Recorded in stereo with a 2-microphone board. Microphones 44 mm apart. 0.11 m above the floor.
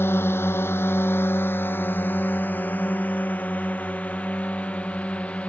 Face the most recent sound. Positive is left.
turn(degrees=30)  # may be behind; listen again after turning